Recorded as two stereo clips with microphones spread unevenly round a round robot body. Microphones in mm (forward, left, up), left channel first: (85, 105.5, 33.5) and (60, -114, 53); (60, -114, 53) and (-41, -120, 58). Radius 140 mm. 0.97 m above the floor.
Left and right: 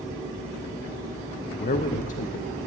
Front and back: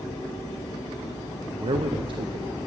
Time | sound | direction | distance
1.6 | a man speaking | 140° left | 0.9 m